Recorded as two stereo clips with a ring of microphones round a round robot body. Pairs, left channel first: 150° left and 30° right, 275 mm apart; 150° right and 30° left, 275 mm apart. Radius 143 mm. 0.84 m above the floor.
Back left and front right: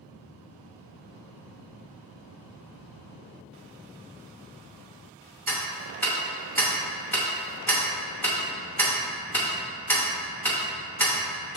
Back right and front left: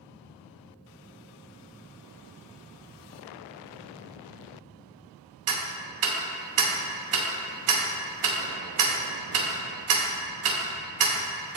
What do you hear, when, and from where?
5.5 s ticking: 65° left, 0.6 m